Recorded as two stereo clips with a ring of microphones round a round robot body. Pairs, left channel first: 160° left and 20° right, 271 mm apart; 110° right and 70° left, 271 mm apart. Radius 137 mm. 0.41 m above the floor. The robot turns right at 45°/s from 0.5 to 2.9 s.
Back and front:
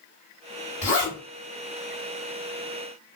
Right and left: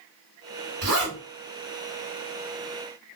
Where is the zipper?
95° left, 2.0 m; by 1.2 s 110° left, 2.0 m.